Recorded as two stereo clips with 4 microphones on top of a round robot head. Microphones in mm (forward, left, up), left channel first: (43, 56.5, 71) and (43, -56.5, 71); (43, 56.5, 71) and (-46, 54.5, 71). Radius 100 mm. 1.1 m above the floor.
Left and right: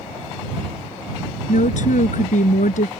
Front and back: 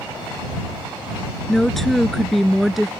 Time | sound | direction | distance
1.5 | a woman speaking | 85° left | ?